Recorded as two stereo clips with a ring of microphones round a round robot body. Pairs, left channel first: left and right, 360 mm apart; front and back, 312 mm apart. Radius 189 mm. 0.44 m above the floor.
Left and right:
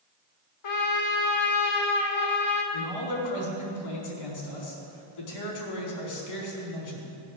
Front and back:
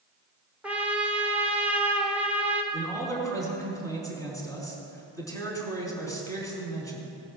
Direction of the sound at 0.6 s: 95° left.